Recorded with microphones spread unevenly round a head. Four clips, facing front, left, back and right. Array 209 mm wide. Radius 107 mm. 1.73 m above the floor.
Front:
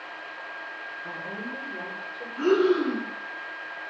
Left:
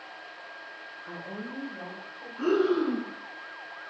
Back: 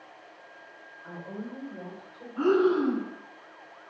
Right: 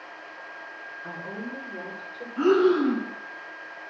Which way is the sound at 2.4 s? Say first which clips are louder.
Right 5 dB, front 1 dB; 115° right.